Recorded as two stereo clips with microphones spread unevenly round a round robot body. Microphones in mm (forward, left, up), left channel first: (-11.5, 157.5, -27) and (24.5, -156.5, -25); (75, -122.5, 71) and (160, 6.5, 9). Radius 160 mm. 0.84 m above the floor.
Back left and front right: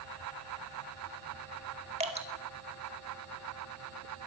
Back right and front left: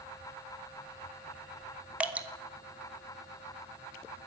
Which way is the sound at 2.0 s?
15° right.